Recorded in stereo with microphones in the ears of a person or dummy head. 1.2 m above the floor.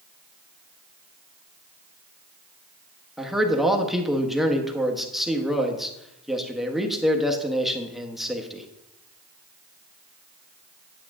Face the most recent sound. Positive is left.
turn(degrees=0)  # may be behind; listen again after turning